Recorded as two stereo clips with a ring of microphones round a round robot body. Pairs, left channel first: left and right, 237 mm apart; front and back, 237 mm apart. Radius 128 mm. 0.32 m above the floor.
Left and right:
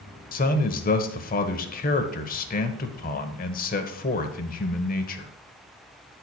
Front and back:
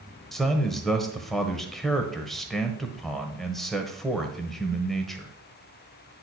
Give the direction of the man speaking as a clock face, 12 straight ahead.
9 o'clock.